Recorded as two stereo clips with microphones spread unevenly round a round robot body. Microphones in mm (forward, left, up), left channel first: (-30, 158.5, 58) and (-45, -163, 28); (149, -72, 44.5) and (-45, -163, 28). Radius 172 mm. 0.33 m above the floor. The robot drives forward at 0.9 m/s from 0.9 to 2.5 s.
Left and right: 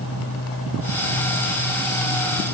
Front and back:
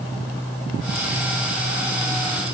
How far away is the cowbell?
I don't hear a cowbell.